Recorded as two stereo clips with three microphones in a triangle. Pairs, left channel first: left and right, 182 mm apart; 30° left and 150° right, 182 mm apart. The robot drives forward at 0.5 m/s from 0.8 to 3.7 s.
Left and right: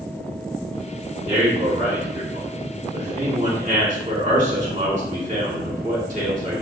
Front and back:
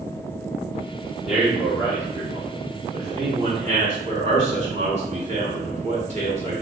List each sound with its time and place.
1.3 s a man speaking: 65° right, 1.8 m; by 6.6 s 115° right, 1.8 m